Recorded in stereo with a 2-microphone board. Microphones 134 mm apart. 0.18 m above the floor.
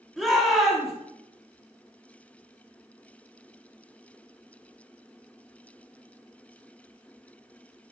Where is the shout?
Centre (ahead or behind), 1.3 m.